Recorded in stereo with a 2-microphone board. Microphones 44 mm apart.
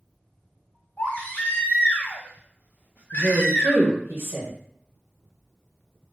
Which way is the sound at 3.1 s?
50° right (ahead or behind).